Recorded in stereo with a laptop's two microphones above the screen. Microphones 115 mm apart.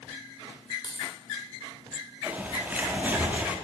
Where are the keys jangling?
40° left (ahead or behind), 2.5 m.